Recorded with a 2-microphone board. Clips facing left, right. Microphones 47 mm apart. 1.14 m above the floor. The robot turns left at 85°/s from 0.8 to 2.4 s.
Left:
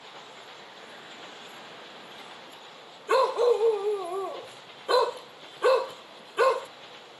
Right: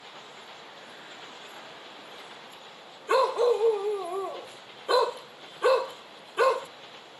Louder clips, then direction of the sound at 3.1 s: Left 1 dB; centre (ahead or behind).